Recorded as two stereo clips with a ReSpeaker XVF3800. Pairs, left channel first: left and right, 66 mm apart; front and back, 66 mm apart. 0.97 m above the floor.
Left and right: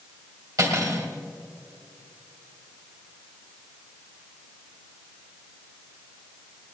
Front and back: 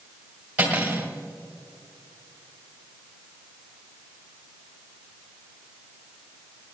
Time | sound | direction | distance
0.6 | cutlery clinking | 115° right | 2.5 m